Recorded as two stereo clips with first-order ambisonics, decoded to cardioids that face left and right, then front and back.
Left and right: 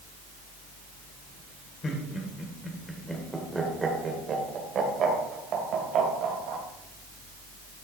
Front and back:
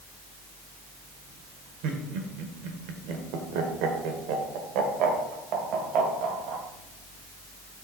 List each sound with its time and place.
1.8 s laughter: 155° left, 1.7 m; by 6.6 s 130° right, 2.5 m